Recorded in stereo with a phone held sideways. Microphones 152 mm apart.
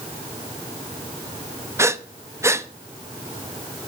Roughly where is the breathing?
Centre.